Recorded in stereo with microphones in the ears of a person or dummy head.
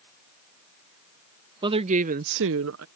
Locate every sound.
1.6 s a woman speaking: 30° right (ahead or behind); by 2.9 s 75° right (ahead or behind)